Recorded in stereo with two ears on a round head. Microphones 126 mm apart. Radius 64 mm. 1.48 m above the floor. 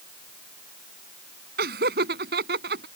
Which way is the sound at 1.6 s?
70° right (ahead or behind).